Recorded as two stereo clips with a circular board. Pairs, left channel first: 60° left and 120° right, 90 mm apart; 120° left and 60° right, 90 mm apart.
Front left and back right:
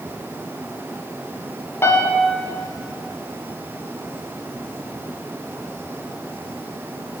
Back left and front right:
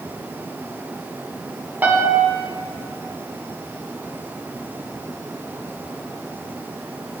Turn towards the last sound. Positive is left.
turn(degrees=5)